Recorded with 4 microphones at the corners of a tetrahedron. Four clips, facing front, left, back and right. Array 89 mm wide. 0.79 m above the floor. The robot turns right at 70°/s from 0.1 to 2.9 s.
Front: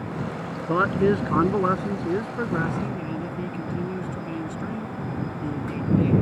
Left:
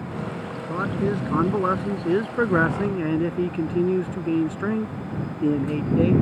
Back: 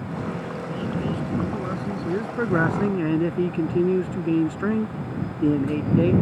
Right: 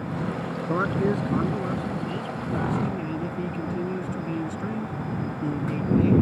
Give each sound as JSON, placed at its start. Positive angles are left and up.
{"t": 0.7, "sound": "a man speaking", "azimuth_deg": -20}